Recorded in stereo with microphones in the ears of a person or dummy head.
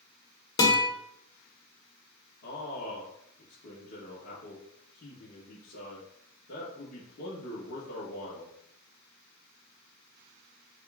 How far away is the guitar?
About 1.5 m.